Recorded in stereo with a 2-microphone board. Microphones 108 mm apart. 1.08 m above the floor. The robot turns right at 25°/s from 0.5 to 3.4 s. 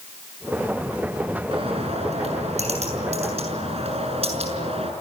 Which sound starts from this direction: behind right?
A bird, at 1.5 s.